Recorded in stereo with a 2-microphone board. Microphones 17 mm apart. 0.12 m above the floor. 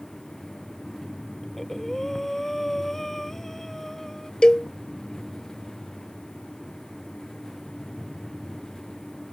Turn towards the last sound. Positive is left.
turn(degrees=55)  # may be behind; listen again after turning